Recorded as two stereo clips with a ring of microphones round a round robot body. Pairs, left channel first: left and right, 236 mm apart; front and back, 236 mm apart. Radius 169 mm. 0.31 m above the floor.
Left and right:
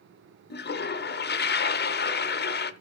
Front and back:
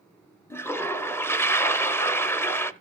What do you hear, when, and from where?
0.5 s a toilet flushing: 75° left, 0.8 m